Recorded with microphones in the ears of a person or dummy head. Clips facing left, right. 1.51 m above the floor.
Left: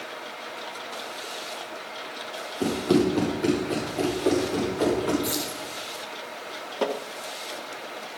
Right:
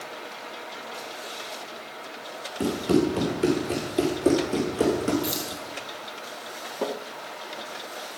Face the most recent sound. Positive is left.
turn(degrees=-5)  # may be behind; listen again after turning